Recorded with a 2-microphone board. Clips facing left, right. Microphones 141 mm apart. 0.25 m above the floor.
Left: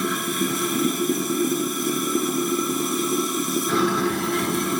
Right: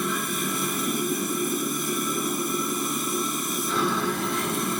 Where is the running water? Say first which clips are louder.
Left 4 dB; 70° left (ahead or behind), 1.3 m.